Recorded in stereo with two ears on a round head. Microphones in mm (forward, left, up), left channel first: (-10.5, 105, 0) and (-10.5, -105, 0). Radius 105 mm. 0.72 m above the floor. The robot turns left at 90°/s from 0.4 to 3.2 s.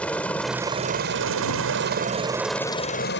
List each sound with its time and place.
0.0 s a helicopter: 5° left (ahead or behind); by 3.2 s 55° left (ahead or behind)